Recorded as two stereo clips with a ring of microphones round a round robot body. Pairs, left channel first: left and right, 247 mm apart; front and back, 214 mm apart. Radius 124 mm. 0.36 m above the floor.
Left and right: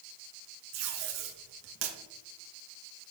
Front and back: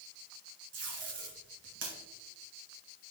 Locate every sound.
0.7 s tape being pulled: 130° right, 2.5 m